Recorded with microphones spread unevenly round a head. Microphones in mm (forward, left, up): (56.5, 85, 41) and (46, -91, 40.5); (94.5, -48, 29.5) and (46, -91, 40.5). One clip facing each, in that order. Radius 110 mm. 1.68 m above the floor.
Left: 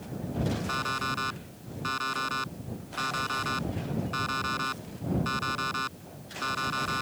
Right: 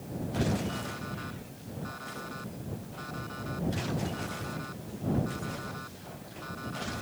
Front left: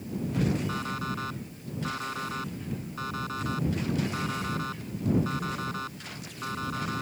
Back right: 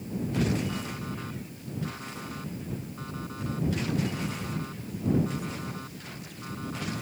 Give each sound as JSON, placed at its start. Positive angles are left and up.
{"t": 0.7, "sound": "an alarm clock", "azimuth_deg": 95}